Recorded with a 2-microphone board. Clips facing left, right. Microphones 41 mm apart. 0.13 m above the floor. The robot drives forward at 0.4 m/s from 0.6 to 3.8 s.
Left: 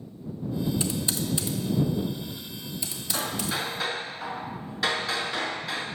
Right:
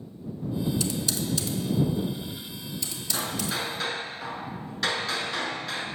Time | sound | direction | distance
0.8 | typing on a keyboard | 25° left (ahead or behind) | 0.6 m
3.1 | hammering | 5° left (ahead or behind) | 0.7 m